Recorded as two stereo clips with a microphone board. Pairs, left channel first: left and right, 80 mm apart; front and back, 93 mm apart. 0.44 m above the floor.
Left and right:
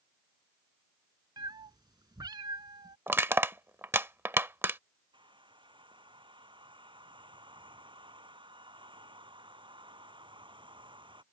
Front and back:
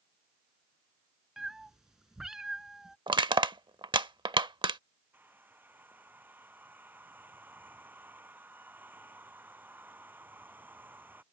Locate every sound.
1.4 s a cat meowing: 95° right
3.1 s crushing: 150° right
5.1 s a hair dryer: 110° right